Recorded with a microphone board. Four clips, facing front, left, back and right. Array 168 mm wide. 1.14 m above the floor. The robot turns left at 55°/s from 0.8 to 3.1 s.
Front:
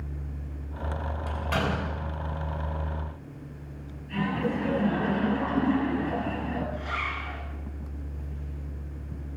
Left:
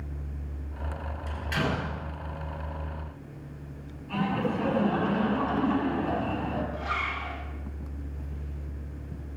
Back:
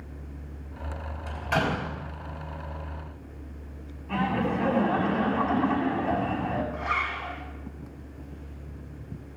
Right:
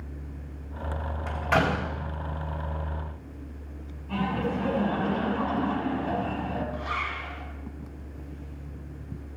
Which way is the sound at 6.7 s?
150° right.